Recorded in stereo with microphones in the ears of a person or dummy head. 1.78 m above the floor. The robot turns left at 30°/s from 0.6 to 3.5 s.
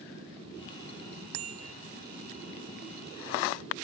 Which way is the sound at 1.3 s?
85° right.